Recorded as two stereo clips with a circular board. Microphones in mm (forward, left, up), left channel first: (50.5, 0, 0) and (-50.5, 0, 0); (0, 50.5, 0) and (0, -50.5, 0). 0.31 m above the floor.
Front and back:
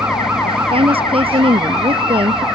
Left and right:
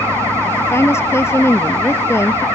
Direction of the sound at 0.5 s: 155° left.